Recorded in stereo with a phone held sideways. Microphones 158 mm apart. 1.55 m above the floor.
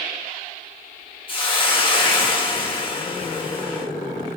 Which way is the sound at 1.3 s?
35° left (ahead or behind).